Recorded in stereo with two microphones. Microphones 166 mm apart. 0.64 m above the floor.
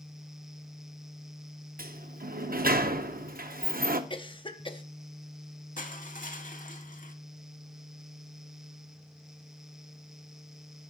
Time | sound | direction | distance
1.8 | a sliding door | 60° right (ahead or behind) | 0.6 m
4.1 | a cough | 30° left (ahead or behind) | 0.7 m
5.8 | crushing | 55° left (ahead or behind) | 0.8 m